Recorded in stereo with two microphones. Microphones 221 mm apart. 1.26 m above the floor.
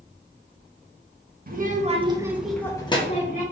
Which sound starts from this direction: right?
A child speaking, at 1.5 s.